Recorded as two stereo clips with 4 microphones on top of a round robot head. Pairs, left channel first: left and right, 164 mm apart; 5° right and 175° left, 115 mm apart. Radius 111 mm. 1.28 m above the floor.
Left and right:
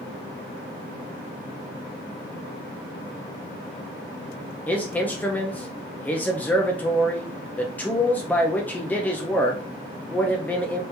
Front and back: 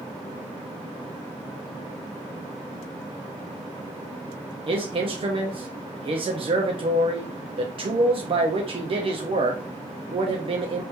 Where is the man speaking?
165° left, 0.7 m.